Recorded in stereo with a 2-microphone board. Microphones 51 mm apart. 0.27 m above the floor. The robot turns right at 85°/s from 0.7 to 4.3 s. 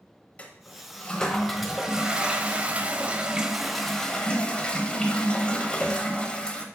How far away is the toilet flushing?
About 0.9 m.